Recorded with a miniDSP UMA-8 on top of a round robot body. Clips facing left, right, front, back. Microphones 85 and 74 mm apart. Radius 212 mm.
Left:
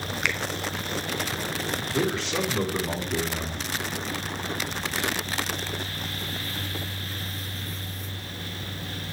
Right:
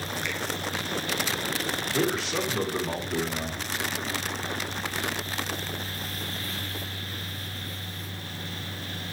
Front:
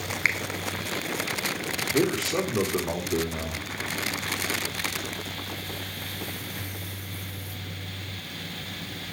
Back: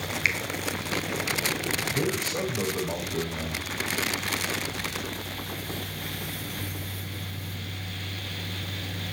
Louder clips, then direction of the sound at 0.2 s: Left 7 dB, front 1 dB; 60° left.